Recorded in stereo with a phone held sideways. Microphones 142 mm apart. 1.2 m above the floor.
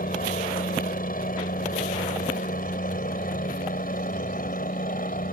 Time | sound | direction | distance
0.0 | a helicopter | 75° left (ahead or behind) | ?